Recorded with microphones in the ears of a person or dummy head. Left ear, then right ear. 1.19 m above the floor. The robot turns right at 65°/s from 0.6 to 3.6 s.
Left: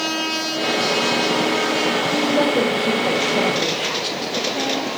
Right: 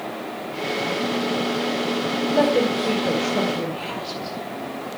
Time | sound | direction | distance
2.3 | a woman speaking | 40° right (ahead or behind) | 4 m